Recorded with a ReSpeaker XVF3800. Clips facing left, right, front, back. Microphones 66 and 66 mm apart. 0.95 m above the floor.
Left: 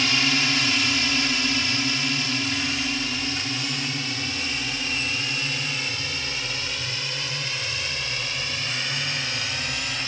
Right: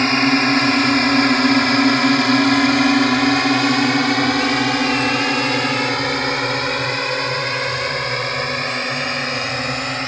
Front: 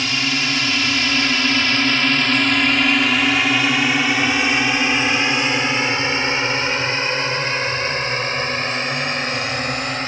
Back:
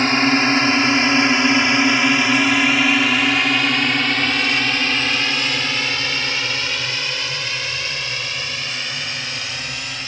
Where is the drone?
130° right; by 10.1 s 45° right.